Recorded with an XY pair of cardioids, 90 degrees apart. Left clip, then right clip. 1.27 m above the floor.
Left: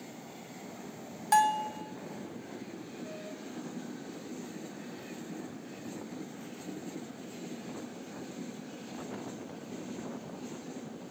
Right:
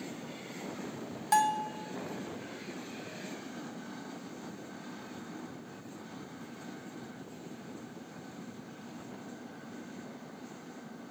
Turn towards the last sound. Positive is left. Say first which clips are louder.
# left 2 dB
turn(degrees=5)